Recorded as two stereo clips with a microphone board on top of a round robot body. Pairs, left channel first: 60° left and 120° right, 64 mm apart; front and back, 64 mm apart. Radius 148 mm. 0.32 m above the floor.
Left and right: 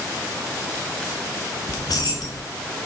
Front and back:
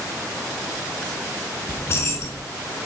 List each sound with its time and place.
1.7 s keys jangling: 45° left, 2.5 m